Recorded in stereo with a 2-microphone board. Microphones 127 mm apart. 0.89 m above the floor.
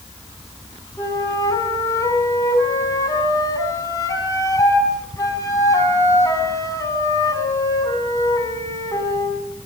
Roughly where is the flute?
Left.